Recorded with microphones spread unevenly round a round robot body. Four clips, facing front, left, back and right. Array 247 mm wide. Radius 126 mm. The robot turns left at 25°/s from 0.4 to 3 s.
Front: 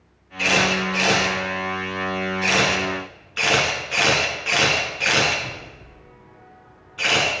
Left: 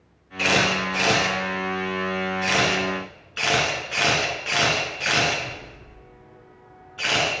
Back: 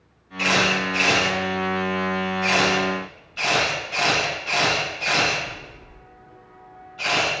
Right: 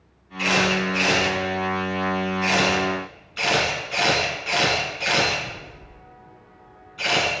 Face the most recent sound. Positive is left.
turn(degrees=35)